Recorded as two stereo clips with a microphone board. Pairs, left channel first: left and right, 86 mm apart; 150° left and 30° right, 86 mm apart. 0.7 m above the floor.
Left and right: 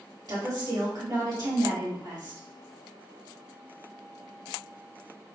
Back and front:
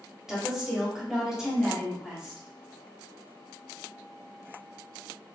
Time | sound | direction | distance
0.3 | a woman speaking | 110° right | 1.9 m